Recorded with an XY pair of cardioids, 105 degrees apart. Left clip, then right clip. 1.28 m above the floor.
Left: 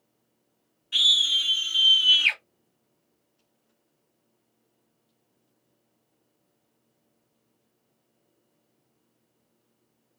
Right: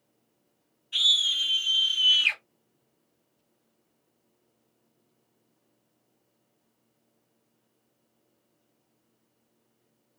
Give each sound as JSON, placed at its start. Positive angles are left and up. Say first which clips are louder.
{"t": 0.9, "sound": "a scream", "louder": "left 3 dB", "azimuth_deg": 70, "distance_m": 1.5}